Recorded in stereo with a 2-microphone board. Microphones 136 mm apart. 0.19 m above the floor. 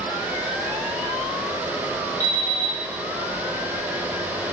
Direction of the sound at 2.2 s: 60° left (ahead or behind).